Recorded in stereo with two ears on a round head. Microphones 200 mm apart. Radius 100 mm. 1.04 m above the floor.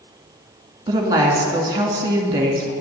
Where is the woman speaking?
20° right (ahead or behind), 2 m.